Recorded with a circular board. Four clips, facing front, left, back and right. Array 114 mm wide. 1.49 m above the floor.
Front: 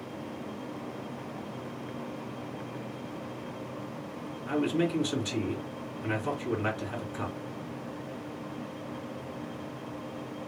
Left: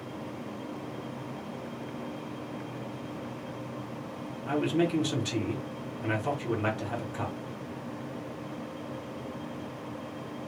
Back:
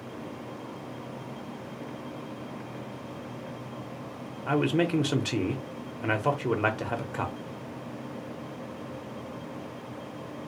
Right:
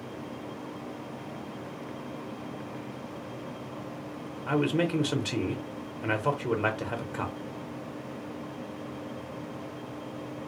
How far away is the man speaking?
About 0.8 m.